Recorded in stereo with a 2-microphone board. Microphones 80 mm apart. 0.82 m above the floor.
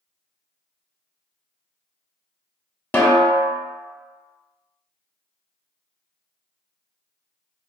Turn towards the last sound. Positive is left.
turn(degrees=25)  # may be behind; listen again after turning